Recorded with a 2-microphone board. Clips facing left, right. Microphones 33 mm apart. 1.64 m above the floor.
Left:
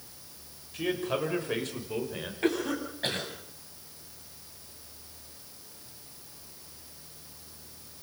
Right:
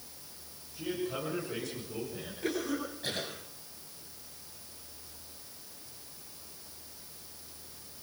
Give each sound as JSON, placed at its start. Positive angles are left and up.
{"t": 0.7, "sound": "a man speaking", "side_deg": 65, "distance_m": 6.5}
{"t": 2.4, "sound": "a cough", "side_deg": 55, "distance_m": 9.0}